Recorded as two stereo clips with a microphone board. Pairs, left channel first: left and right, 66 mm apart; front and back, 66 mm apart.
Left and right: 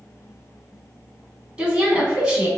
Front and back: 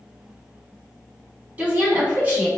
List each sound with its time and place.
1.6 s a woman speaking: 150° right, 1.1 m